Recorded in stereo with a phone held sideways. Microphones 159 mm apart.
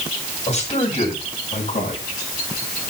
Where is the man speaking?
45° left (ahead or behind), 5.5 m; by 2.0 s 60° left (ahead or behind), 6 m.